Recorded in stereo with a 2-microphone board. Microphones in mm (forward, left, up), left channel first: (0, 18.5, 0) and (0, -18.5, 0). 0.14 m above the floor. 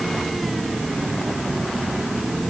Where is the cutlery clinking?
No cutlery clinking in this recording.